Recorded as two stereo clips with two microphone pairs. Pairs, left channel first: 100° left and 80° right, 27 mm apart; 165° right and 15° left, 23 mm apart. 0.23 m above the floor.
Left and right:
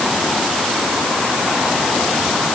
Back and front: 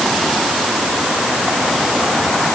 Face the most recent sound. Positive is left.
No sound to turn to.